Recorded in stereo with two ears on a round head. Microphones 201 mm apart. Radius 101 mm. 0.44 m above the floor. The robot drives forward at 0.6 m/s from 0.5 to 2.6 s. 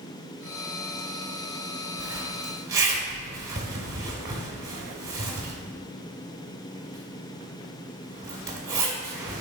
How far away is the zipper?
About 1.4 m.